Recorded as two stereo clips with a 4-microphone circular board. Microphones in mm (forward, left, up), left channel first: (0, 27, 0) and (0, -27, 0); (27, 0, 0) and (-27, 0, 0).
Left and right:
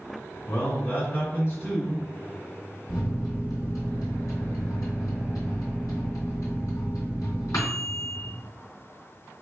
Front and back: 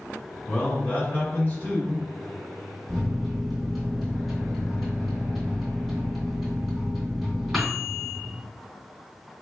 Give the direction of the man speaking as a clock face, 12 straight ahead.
10 o'clock.